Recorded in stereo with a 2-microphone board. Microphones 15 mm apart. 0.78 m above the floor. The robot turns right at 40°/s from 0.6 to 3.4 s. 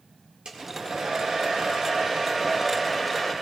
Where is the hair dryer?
105° right, 2.0 m; by 3.3 s straight ahead, 2.0 m.